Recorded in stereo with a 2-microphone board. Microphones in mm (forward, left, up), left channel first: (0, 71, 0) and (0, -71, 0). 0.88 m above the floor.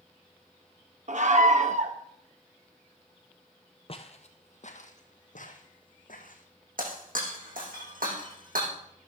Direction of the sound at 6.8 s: 80° right.